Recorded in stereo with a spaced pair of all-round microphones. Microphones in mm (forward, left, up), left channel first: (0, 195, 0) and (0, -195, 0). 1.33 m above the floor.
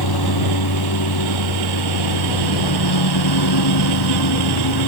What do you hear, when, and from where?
0.0 s a lawn mower: 75° left (ahead or behind); by 4.9 s 85° left